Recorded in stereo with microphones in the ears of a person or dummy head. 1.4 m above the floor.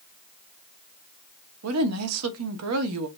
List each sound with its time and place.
1.6 s a woman speaking: 75° right (ahead or behind), 0.8 m